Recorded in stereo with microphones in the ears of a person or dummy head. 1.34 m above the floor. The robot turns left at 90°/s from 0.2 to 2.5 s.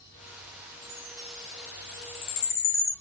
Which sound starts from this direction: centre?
A chime, at 0.8 s.